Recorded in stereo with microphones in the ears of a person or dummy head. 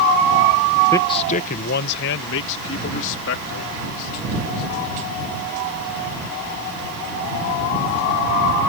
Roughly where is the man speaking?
Centre.